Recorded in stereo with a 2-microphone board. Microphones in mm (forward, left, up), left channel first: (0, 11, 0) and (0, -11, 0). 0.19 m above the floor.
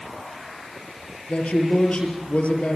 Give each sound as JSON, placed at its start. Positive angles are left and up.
{"t": 1.3, "sound": "a man speaking", "side_deg": 65, "distance_m": 5.0}